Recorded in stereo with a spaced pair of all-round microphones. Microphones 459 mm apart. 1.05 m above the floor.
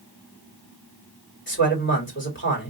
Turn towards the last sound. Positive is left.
turn(degrees=25)  # may be behind; listen again after turning